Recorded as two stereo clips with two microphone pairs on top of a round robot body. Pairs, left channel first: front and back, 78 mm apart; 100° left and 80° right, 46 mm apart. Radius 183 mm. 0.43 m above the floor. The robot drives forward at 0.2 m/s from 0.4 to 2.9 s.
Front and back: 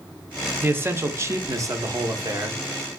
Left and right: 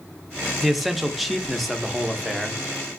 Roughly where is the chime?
No chime in this recording.